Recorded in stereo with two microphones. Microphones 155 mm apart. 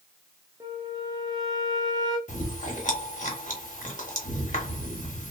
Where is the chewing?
50° left (ahead or behind), 0.9 m.